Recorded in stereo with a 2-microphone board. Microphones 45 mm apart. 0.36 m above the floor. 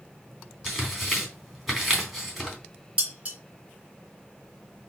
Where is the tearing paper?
5° right (ahead or behind), 3.5 m.